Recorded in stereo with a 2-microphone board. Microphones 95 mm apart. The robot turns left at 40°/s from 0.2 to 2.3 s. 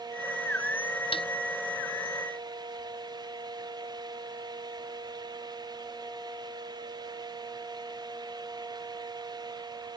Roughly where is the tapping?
Left.